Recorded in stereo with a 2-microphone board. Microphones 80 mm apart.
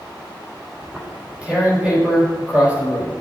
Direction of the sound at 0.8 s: 15° right (ahead or behind).